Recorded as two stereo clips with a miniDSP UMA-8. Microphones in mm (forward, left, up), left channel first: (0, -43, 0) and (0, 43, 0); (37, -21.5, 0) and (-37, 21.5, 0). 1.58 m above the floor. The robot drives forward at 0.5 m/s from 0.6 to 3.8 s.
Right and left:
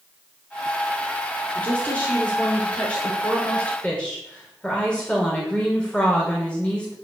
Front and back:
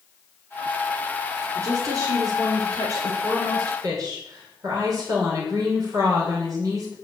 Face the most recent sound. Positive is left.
turn(degrees=-165)